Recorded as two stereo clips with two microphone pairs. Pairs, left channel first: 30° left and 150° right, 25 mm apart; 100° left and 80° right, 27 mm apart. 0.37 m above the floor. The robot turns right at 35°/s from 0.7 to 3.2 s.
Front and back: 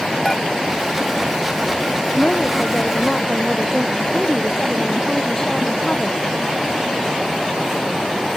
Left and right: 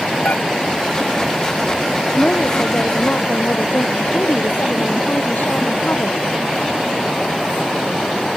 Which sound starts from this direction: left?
Dishes clattering, at 0.2 s.